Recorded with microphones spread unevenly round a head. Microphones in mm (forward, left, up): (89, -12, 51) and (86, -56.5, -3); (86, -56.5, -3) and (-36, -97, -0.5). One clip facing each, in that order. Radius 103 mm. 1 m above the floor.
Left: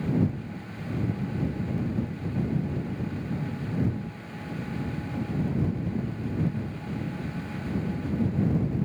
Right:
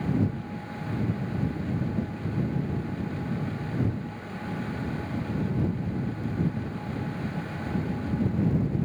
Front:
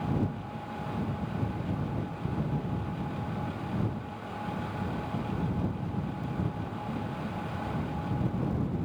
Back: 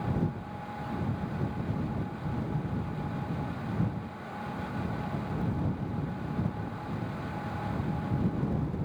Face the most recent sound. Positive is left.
No sound to turn to.